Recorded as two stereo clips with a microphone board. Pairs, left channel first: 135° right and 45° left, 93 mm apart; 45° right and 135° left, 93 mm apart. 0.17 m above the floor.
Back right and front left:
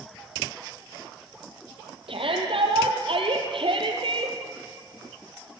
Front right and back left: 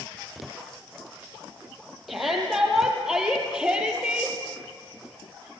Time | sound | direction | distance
2.1 | a shout | 45° left | 6 m